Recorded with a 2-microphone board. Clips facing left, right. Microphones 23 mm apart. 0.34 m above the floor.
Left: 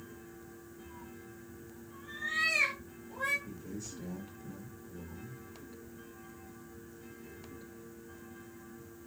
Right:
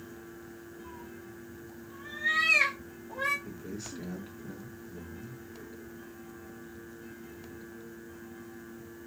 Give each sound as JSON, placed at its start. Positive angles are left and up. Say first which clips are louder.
{"t": 0.8, "sound": "a cat meowing", "louder": "right 3 dB", "side_deg": -60, "distance_m": 7.5}
{"t": 3.5, "sound": "a man speaking", "louder": "right 3 dB", "side_deg": -70, "distance_m": 4.0}